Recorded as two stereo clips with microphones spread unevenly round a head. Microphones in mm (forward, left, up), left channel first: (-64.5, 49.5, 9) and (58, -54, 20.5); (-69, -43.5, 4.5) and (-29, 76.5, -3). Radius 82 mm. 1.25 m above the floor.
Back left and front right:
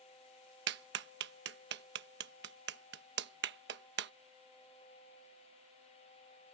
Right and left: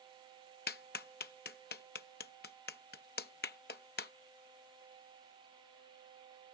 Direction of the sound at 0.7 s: 65° right.